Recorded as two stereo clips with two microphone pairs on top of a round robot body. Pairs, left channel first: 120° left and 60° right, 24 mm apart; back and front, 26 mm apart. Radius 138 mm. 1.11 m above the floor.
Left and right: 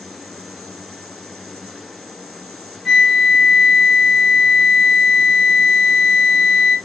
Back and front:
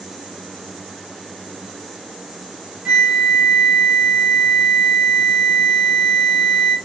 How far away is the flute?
About 1.1 m.